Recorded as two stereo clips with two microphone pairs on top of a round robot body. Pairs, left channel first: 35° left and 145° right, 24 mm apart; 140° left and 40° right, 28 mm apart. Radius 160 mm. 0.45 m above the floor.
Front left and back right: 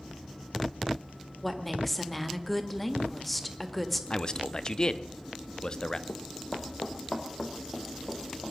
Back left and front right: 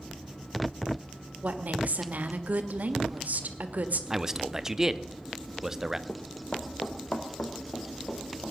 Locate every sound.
1.4 s a woman speaking: 45° right, 1.7 m
4.1 s a man speaking: 30° left, 1.0 m
6.1 s running footsteps: 65° left, 0.9 m; by 8.5 s 110° left, 4 m